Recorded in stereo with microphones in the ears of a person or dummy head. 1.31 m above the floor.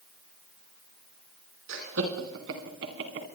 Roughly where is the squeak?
No squeak in this recording.